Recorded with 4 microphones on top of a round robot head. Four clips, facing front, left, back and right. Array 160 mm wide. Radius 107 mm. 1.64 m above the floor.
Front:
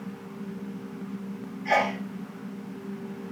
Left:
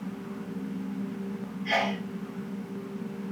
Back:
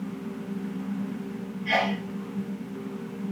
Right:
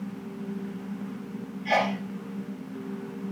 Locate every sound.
1.6 s a sneeze: 30° right, 6 m